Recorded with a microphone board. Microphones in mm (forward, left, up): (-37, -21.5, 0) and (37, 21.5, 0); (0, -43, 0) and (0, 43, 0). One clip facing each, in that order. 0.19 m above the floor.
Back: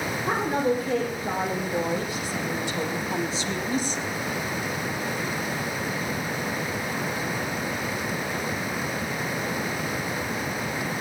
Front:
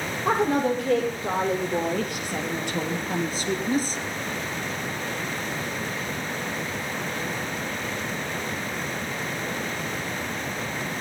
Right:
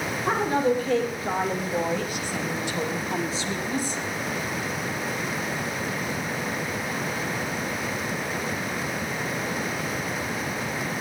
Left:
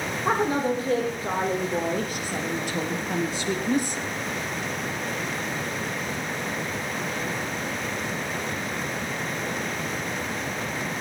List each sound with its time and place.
0.2 s a woman speaking: 35° left, 7 m; by 4.0 s 75° left, 3 m